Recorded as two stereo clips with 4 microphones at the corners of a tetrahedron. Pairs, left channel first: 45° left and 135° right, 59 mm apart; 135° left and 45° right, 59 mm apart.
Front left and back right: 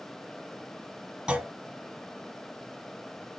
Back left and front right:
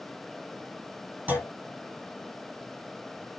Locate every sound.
1.3 s a clunk: 70° right, 1.5 m